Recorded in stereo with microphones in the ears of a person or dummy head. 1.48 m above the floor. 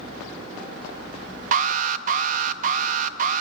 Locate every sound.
1.5 s an alarm: 45° right (ahead or behind), 0.8 m